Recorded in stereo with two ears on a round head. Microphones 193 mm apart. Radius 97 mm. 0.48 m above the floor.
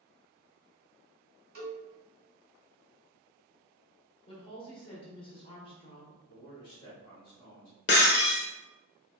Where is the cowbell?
45° right (ahead or behind), 1.2 m.